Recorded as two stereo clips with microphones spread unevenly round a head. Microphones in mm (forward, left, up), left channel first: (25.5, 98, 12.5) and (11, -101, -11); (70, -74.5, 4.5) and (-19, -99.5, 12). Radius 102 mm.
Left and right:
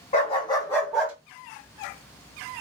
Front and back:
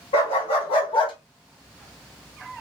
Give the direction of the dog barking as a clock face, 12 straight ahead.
11 o'clock.